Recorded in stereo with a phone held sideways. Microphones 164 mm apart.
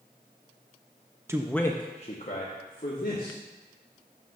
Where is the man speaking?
20° right (ahead or behind), 0.5 m; by 3.4 s 60° left (ahead or behind), 1.8 m.